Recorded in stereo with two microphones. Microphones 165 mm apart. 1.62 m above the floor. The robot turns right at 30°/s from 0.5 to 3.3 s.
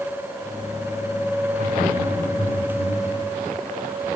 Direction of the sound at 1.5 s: 65° right (ahead or behind).